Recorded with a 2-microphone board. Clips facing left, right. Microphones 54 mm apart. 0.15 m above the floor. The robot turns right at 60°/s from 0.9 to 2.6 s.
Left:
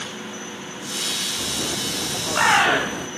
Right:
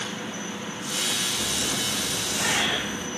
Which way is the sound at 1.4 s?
40° left (ahead or behind).